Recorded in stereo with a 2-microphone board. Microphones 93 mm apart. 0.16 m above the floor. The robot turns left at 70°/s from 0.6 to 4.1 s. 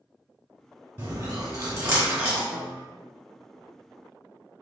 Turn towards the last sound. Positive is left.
turn(degrees=85)